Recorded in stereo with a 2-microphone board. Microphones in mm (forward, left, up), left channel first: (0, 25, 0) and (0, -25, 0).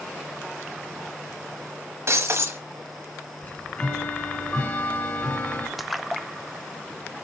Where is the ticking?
30° left (ahead or behind), 1.3 m.